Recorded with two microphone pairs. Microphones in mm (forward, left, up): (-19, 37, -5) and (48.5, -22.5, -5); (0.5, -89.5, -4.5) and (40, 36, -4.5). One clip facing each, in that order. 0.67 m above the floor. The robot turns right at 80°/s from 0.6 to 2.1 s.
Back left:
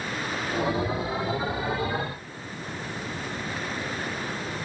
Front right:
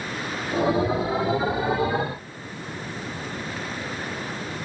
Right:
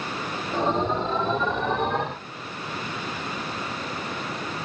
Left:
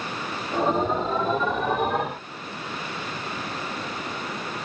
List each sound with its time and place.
Only background noise.